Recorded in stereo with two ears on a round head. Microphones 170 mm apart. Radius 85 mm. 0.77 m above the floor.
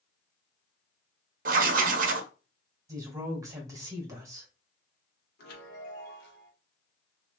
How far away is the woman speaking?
About 1.8 m.